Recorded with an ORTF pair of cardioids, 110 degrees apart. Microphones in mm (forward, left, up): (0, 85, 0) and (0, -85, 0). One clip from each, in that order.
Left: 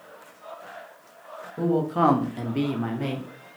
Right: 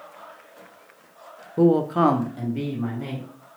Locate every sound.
1.6 s a man speaking: 45° right, 0.6 m; by 3.3 s 55° left, 1.1 m